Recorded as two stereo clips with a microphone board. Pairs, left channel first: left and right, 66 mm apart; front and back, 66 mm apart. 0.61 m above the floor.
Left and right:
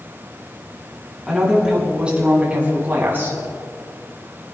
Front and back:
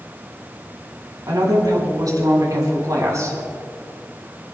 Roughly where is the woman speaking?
Behind.